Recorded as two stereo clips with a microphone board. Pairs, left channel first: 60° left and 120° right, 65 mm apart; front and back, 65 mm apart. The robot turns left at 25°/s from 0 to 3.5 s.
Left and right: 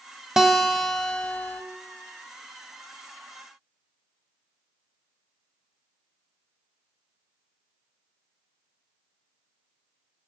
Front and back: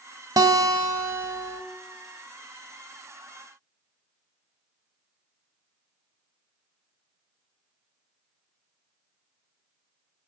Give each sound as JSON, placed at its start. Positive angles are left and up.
{"t": 0.4, "sound": "a guitar", "azimuth_deg": 160, "distance_m": 0.5}